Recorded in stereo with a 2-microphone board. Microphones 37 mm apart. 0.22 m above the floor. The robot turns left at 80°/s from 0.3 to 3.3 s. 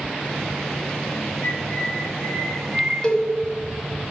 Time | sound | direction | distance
1.4 | a bird | 100° left | 1.9 m
3.0 | a cowbell | 25° left (ahead or behind) | 1.4 m